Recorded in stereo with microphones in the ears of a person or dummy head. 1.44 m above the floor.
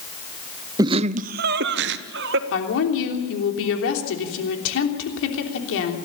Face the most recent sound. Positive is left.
turn(degrees=80)